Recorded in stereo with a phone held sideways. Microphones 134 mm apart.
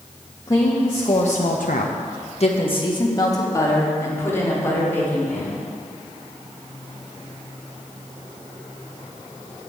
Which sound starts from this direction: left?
A woman speaking, at 0.5 s.